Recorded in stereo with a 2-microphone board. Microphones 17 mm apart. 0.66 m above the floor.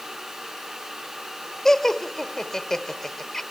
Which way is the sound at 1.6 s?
25° left (ahead or behind).